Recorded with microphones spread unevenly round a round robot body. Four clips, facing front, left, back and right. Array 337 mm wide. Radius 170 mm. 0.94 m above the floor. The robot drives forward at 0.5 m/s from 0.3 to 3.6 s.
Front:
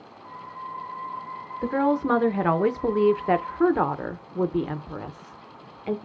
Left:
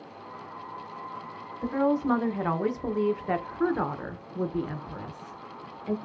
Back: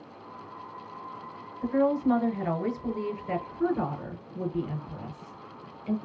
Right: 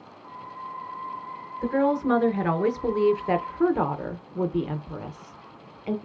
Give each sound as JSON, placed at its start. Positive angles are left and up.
{"t": 1.6, "sound": "a woman speaking", "azimuth_deg": -10, "distance_m": 1.3}